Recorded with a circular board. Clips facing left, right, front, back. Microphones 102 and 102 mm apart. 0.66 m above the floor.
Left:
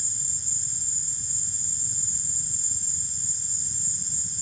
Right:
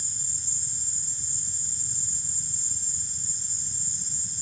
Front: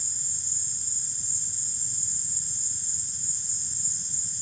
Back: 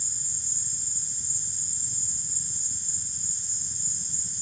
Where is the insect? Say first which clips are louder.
Left 1 dB, back 1 dB; 115° right, 1.2 m.